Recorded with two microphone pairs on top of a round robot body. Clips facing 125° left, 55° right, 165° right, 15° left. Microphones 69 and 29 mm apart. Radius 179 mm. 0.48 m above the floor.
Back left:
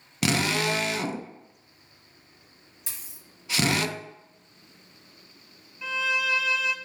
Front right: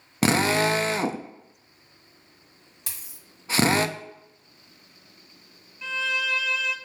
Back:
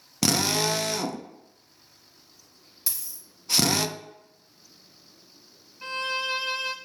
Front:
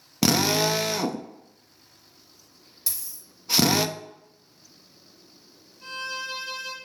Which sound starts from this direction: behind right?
A violin, at 5.8 s.